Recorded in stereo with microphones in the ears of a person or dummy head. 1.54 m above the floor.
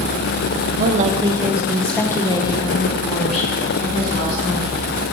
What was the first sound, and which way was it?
A woman speaking, 50° right (ahead or behind).